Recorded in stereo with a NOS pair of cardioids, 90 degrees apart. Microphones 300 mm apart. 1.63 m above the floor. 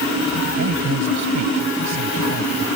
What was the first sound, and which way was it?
A man speaking, 65° right.